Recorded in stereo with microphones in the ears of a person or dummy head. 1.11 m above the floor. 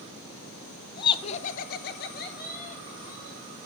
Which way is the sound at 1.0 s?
25° left (ahead or behind).